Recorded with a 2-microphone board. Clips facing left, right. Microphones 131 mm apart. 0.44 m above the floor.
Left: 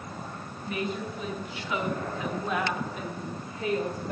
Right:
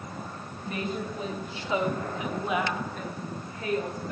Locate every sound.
0.7 s a woman speaking: 35° right (ahead or behind), 2.5 m; by 4.1 s 30° left (ahead or behind), 1.8 m